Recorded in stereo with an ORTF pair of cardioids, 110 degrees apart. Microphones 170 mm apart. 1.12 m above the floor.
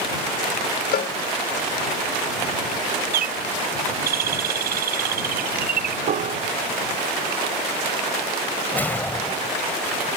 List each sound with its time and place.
0.9 s a cowbell: 55° left
3.1 s a bird: 55° right
6.1 s a piano: 50° right
8.7 s a whoosh: 10° left